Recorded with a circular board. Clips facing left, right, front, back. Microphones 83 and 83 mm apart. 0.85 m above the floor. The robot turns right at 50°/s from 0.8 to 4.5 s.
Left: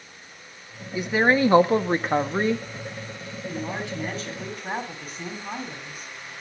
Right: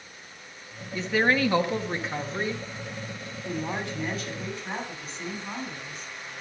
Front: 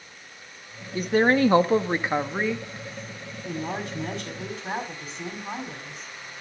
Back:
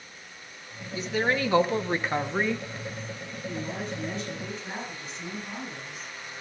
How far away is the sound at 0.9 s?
About 1.4 m.